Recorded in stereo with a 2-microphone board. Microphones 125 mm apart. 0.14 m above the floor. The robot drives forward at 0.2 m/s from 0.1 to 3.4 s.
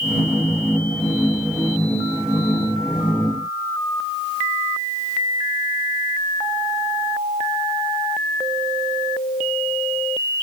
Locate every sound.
Only background noise.